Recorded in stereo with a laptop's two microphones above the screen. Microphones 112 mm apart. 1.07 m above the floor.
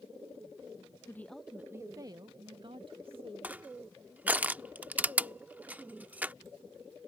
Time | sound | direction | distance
1.1 | a woman speaking | 25° left (ahead or behind) | ?
3.4 | crushing | 15° right (ahead or behind) | ?